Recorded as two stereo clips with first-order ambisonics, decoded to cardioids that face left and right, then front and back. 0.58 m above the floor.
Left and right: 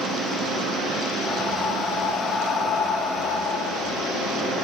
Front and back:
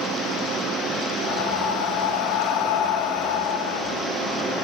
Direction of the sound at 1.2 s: 15° left.